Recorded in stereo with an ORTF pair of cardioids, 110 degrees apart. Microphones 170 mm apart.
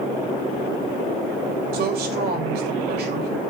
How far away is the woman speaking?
About 5.5 m.